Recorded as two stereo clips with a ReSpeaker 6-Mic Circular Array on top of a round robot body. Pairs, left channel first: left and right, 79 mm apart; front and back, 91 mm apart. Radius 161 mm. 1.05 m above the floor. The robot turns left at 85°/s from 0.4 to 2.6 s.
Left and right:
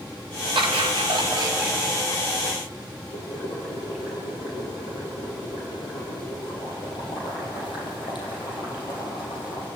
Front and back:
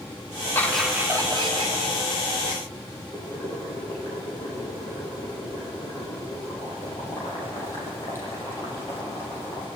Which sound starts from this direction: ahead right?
Laughter, at 0.6 s.